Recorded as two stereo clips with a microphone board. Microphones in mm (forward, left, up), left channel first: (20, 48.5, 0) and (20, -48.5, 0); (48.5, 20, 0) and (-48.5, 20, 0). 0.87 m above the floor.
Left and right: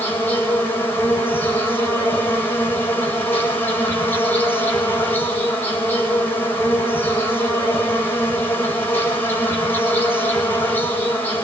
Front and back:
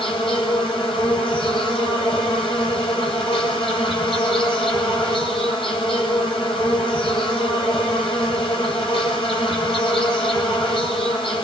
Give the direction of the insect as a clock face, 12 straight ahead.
11 o'clock.